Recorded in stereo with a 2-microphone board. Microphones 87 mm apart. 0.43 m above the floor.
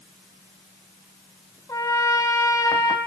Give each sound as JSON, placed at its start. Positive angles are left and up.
{"t": 1.7, "sound": "a trumpet", "side_deg": 40, "distance_m": 3.0}